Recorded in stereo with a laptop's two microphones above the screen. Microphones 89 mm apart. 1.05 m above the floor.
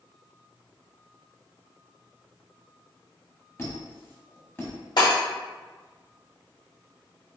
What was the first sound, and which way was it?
A squeak, 25° left (ahead or behind).